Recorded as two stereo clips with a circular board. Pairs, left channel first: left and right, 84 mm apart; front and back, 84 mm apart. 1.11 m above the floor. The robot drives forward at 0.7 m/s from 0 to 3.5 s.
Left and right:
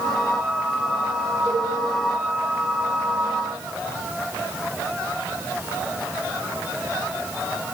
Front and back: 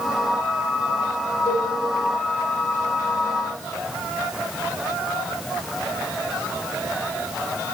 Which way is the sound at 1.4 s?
135° right.